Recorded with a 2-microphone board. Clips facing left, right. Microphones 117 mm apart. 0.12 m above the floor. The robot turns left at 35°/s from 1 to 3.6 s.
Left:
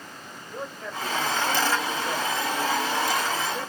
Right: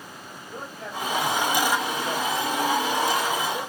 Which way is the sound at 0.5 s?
85° right.